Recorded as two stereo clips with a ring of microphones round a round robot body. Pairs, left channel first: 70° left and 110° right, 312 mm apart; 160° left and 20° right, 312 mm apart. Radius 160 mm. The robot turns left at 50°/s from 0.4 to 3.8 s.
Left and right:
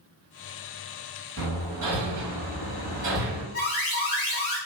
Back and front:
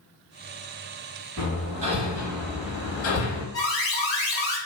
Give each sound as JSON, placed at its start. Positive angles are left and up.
{"t": 1.4, "sound": "hammering", "azimuth_deg": -70, "distance_m": 1.2}
{"t": 3.5, "sound": "an alarm", "azimuth_deg": 125, "distance_m": 1.7}